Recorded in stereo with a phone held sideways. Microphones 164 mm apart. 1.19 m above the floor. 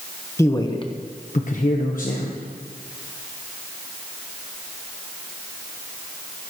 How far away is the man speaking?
About 1.0 m.